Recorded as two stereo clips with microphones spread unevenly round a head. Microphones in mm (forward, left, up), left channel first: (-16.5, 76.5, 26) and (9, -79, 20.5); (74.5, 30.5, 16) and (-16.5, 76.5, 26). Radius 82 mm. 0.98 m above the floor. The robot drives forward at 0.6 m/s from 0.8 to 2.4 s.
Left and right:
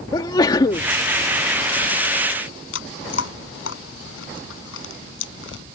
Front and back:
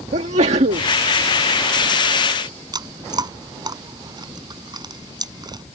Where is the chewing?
105° left.